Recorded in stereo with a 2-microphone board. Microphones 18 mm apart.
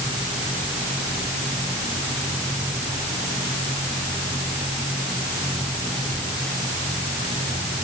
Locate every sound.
Only background noise.